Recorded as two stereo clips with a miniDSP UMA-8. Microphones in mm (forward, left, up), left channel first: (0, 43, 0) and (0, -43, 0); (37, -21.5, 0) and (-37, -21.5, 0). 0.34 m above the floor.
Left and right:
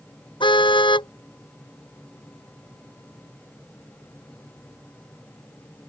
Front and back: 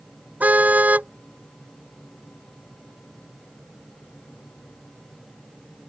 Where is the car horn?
110° left.